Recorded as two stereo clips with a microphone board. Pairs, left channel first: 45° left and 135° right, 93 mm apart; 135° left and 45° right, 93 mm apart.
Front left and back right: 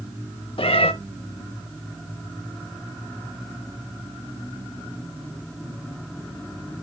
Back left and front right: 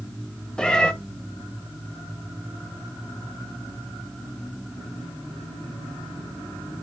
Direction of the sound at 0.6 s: 55° left.